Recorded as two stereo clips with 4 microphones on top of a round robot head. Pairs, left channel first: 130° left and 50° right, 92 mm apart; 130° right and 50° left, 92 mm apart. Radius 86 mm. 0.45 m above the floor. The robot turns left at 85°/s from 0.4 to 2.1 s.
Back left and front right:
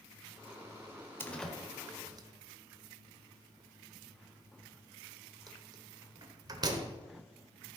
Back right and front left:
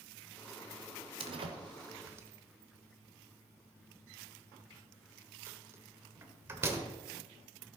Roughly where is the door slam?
Ahead left.